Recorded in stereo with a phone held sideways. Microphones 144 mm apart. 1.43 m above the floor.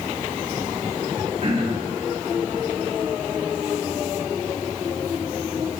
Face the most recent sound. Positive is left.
turn(degrees=-45)  # may be behind; listen again after turning